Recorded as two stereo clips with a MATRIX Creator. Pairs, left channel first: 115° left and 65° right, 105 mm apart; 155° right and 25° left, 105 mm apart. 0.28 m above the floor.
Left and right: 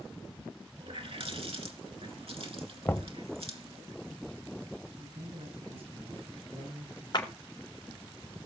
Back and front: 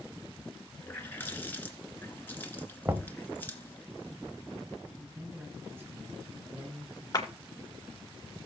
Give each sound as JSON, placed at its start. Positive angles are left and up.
{"t": 0.8, "sound": "a running tap", "azimuth_deg": -85, "distance_m": 2.5}
{"t": 2.9, "sound": "knocking", "azimuth_deg": 65, "distance_m": 0.9}
{"t": 5.0, "sound": "a man speaking", "azimuth_deg": -45, "distance_m": 7.0}
{"t": 7.1, "sound": "a clap", "azimuth_deg": 150, "distance_m": 3.0}